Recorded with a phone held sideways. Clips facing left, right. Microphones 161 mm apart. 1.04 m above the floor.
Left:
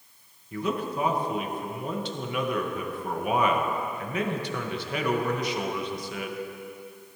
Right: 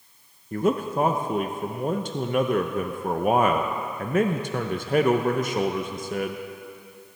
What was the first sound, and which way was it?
A man speaking, 50° right (ahead or behind).